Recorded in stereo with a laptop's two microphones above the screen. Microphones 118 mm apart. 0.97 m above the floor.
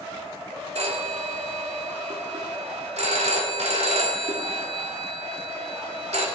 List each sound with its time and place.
0.8 s a phone ringing: 75° right (ahead or behind), 1.9 m